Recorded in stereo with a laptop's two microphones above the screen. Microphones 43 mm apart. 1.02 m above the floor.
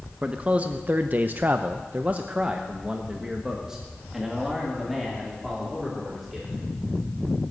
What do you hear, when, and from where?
0.2 s a man speaking: 25° right (ahead or behind), 1.0 m; by 6.6 s 5° right (ahead or behind), 3 m